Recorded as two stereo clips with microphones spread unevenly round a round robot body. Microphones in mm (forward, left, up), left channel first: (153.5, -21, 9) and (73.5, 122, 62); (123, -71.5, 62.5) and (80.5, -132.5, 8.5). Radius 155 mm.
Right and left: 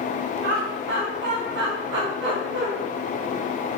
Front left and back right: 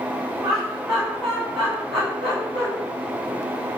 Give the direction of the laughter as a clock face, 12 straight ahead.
7 o'clock.